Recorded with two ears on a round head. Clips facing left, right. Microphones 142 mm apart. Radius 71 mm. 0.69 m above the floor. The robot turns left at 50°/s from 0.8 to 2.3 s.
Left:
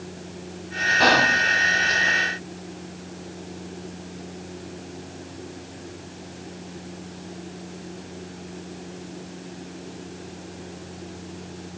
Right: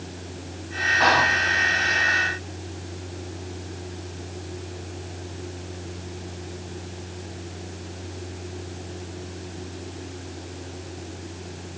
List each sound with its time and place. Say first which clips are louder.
1.0 s whispering: left 1 dB; 40° left (ahead or behind), 0.7 m; by 1.4 s 35° left (ahead or behind), 0.7 m